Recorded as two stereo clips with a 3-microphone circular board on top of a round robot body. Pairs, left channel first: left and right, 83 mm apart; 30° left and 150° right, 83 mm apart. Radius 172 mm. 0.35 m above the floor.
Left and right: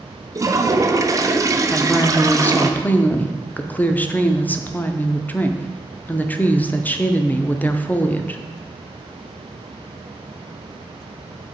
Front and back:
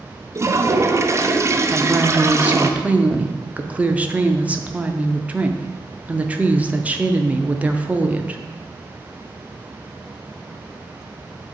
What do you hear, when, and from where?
0.3 s a toilet flushing: 110° right, 0.9 m
1.7 s a woman speaking: 150° left, 0.9 m